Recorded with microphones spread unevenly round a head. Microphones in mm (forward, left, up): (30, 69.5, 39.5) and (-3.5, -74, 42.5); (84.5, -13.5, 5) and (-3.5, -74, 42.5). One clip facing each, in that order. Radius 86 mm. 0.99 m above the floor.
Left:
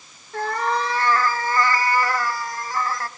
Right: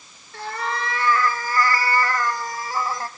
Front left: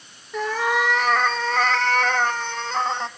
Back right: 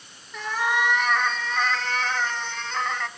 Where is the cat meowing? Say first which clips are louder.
Left 5 dB, front left 3 dB; 35° left, 1.6 m; by 3.1 s 40° right, 1.1 m.